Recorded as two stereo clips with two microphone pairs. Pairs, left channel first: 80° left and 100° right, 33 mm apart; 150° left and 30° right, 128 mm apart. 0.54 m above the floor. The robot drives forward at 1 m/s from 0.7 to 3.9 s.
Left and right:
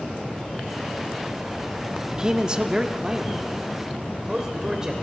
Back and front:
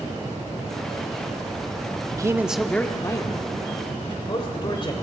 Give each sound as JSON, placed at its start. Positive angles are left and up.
{"t": 2.1, "sound": "a man speaking", "azimuth_deg": -50, "distance_m": 0.8}